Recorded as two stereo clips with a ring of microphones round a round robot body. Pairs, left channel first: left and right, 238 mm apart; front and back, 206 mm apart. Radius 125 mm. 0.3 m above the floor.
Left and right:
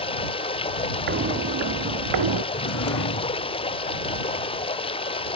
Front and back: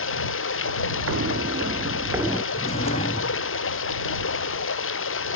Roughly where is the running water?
Ahead.